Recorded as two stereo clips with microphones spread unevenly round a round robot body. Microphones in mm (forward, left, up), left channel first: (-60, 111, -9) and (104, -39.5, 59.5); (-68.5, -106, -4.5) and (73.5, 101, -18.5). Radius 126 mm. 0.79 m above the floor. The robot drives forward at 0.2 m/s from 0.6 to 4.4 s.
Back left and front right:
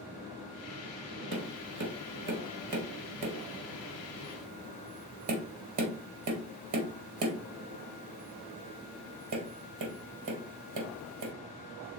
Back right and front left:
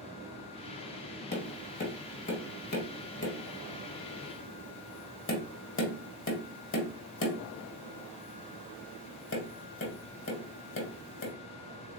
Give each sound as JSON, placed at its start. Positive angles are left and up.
{"t": 1.3, "sound": "tapping", "azimuth_deg": -60, "distance_m": 2.0}